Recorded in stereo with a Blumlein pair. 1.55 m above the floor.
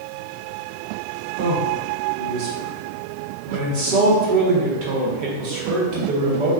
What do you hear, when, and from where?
1.4 s a man speaking: 45° right, 1.3 m